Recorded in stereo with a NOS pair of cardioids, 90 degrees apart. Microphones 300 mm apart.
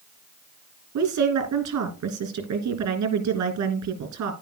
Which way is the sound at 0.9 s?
70° right.